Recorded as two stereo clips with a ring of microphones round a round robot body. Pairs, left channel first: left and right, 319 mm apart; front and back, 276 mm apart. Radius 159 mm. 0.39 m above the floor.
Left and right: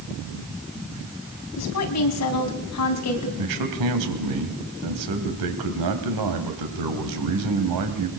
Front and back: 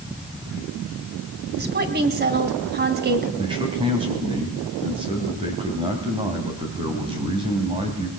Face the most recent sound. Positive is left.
turn(degrees=-105)